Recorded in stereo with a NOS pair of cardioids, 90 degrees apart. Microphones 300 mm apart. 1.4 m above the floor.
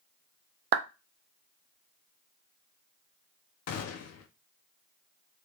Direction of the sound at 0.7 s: 40° right.